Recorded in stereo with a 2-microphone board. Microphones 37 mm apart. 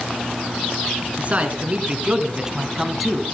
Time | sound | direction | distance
1.2 | a man speaking | 40° right (ahead or behind) | 2 m